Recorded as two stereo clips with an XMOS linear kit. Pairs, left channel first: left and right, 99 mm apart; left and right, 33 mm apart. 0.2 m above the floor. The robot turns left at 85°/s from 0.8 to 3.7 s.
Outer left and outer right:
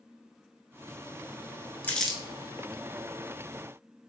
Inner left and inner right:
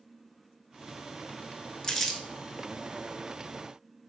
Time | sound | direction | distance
1.8 | crumpling | 20° left (ahead or behind) | 0.5 m